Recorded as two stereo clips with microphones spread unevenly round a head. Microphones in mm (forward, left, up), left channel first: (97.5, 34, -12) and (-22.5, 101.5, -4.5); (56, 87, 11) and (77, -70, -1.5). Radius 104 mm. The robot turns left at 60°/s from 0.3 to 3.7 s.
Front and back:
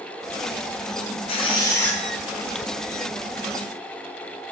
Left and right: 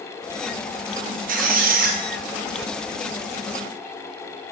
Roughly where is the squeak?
Right.